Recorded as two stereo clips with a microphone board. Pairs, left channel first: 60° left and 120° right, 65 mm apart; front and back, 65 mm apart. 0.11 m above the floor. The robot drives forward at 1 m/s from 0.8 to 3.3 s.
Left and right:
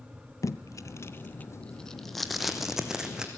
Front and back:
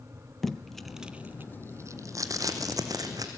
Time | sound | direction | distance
0.4 | tape being pulled | 85° left | 0.9 m